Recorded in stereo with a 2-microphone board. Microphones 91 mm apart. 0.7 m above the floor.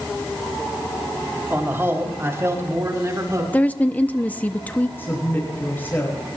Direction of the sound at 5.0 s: 25° left (ahead or behind).